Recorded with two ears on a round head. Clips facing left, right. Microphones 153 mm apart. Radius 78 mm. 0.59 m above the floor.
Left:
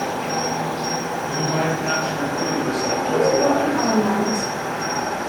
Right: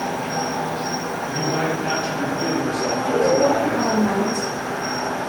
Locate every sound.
0.0 s an insect: 40° left (ahead or behind), 0.9 m
1.2 s a man speaking: 10° right (ahead or behind), 0.6 m
3.0 s a woman speaking: 20° right (ahead or behind), 1.5 m